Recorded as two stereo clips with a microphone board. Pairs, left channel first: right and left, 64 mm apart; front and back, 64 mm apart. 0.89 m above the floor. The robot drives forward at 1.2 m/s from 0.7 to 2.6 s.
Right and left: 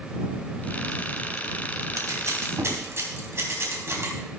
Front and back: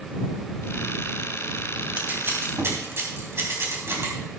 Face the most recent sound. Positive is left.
turn(degrees=135)